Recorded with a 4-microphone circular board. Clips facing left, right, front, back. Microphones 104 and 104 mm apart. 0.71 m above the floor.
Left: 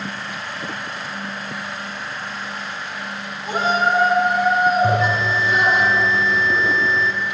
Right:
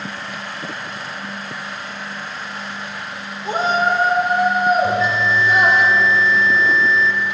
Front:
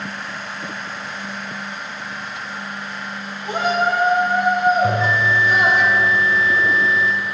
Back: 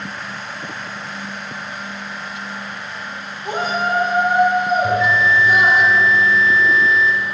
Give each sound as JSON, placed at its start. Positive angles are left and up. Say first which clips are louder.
{"t": 3.5, "sound": "a shout", "louder": "right 1 dB, front 2 dB", "azimuth_deg": -140, "distance_m": 1.9}
{"t": 4.8, "sound": "a bell", "louder": "even, back 2 dB", "azimuth_deg": 55, "distance_m": 0.7}